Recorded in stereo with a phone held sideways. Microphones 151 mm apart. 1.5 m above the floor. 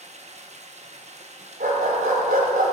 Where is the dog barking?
75° right (ahead or behind), 3.5 m.